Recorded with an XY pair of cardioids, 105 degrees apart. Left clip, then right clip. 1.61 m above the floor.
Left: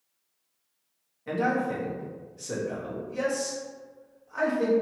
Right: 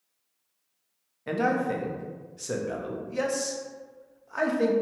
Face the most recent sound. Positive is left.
turn(degrees=-35)